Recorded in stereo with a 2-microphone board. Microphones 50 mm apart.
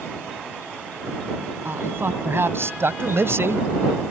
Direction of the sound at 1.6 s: 55° right (ahead or behind).